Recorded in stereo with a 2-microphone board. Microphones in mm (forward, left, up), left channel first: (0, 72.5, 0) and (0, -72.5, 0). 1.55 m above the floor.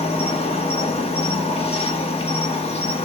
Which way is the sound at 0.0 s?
40° left (ahead or behind).